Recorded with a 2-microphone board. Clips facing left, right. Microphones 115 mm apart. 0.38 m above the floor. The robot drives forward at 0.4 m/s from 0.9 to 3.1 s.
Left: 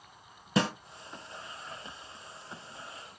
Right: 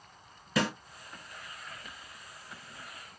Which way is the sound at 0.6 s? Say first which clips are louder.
Left 2 dB; 25° left (ahead or behind).